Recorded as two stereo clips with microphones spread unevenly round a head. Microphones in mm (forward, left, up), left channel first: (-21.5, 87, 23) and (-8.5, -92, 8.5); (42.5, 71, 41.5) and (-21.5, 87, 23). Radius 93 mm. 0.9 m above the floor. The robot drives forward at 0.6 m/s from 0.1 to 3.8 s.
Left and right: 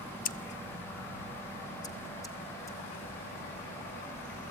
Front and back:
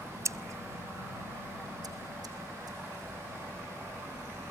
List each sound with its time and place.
0.2 s scissors: 135° left, 0.6 m; by 2.8 s 170° left, 1.9 m